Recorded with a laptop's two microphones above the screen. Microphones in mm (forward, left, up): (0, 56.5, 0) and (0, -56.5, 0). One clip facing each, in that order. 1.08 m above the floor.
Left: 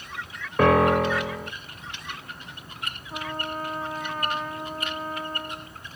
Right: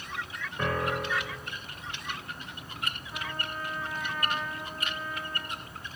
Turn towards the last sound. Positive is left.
turn(degrees=45)  # may be behind; listen again after turning